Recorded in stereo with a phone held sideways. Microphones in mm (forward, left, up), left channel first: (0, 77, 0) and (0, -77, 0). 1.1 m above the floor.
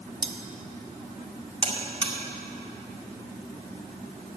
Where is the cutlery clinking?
30° right (ahead or behind), 0.9 m.